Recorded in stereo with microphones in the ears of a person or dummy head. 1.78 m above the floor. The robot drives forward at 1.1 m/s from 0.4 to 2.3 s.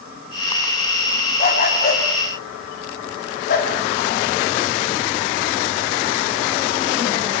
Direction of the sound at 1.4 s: 50° left (ahead or behind).